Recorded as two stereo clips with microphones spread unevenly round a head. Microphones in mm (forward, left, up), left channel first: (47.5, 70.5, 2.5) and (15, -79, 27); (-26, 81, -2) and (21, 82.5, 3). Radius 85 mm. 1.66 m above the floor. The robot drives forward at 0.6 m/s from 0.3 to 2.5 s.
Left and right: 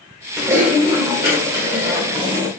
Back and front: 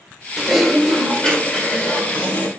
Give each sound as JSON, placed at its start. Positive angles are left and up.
{"t": 0.4, "sound": "typing on a keyboard", "azimuth_deg": -70, "distance_m": 1.4}